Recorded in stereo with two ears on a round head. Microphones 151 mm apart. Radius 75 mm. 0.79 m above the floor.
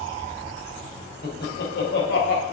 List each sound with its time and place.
1.2 s laughter: 65° left (ahead or behind), 4 m; by 2.4 s 70° left (ahead or behind), 3.5 m